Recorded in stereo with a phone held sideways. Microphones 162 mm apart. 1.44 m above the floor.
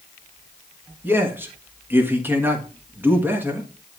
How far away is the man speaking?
About 1.6 m.